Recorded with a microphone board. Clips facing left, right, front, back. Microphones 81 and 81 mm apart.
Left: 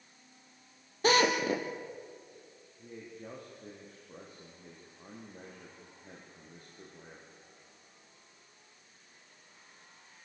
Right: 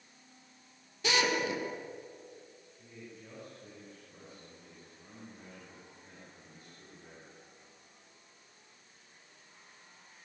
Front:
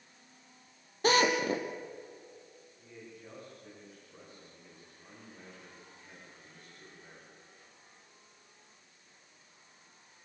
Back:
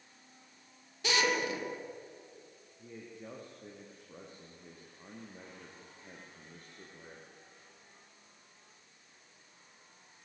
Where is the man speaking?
135° left, 7 m.